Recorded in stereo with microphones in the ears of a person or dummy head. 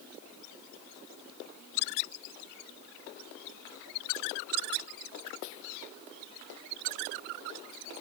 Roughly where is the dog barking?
No dog barking in this recording.